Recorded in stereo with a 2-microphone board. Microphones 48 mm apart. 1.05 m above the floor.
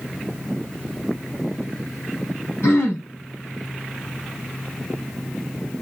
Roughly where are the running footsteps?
No running footsteps in this recording.